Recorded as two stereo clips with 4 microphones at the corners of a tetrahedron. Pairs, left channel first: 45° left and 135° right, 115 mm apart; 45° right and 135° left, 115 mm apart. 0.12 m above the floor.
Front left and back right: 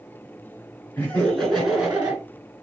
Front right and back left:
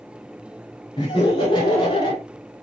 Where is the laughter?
25° right, 2 m; by 2.2 s 65° right, 2.0 m.